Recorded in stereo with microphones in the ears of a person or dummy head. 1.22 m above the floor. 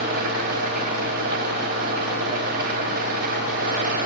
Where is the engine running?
60° right (ahead or behind), 4 m.